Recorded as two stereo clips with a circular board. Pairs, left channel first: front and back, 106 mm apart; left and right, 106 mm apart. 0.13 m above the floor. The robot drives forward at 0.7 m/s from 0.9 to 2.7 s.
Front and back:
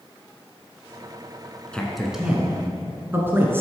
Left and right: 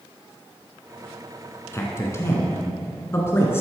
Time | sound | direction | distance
1.7 | a man speaking | 70° left | 1.2 m